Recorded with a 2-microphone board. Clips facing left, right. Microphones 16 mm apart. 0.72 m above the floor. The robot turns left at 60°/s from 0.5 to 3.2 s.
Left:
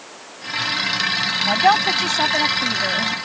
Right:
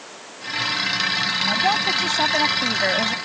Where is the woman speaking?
50° left; by 3.1 s 50° right.